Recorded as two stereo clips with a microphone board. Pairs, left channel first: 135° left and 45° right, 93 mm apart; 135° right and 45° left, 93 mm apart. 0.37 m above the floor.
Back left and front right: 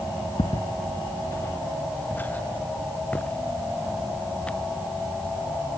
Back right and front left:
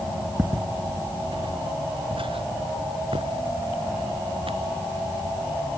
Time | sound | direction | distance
0.4 | footsteps | 110° left | ?